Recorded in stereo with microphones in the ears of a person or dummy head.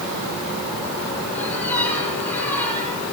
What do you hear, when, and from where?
1.4 s a squeak: 10° left (ahead or behind), 7 m